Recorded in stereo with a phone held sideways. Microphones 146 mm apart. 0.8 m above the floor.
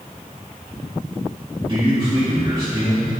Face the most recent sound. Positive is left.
turn(degrees=-35)  # may be behind; listen again after turning